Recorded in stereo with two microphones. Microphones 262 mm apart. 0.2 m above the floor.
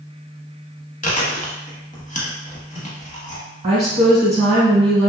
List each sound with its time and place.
1.0 s chewing: 30° left (ahead or behind), 0.6 m
3.6 s a woman speaking: 25° right (ahead or behind), 1.3 m